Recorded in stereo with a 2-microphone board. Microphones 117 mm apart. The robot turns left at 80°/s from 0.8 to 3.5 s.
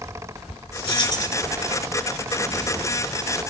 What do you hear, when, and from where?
0.8 s keys jangling: 80° left, 1.2 m; by 1.4 s 30° left, 1.2 m